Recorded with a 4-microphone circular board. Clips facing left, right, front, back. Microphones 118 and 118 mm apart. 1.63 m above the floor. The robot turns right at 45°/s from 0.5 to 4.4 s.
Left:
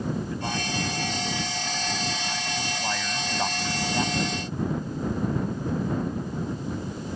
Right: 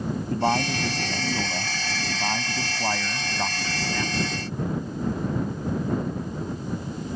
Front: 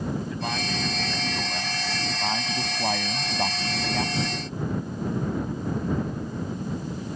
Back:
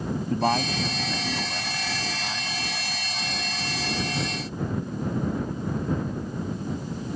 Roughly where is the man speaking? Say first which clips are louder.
Right 7 dB, back 6 dB; behind right.